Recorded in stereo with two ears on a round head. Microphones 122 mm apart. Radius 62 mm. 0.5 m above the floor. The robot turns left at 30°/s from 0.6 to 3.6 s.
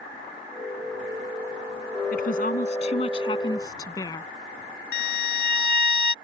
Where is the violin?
75° left (ahead or behind).